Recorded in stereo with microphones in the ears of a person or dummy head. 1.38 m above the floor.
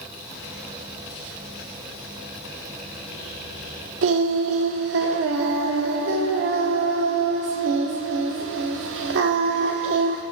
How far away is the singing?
About 1.8 m.